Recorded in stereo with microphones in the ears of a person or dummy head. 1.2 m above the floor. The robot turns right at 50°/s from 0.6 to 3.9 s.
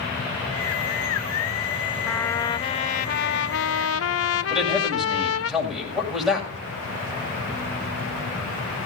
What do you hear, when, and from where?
2.1 s a trumpet: 5° left, 0.8 m; by 5.5 s 95° left, 0.8 m
4.5 s a man speaking: centre (ahead or behind), 7 m